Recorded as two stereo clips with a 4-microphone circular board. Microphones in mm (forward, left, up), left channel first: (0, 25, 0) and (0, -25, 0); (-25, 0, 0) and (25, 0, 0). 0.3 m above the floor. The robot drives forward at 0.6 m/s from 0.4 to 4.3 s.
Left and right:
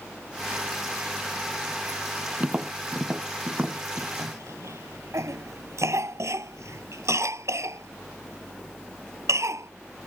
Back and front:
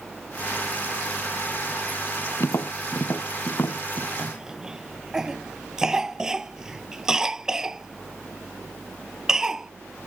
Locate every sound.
2.4 s tapping: 155° right; by 4.1 s 160° right
4.2 s a cough: 75° right; by 9.7 s 80° right